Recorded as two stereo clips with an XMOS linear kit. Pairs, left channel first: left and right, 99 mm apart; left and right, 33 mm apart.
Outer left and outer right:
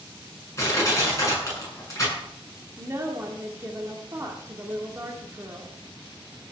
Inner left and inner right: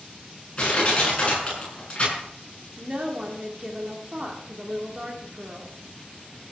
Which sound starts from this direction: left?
Crushing, at 0.6 s.